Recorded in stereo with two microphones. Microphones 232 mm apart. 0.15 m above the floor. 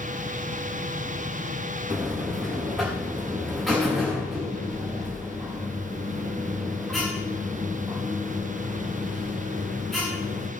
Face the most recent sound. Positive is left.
turn(degrees=0)  # may be behind; listen again after turning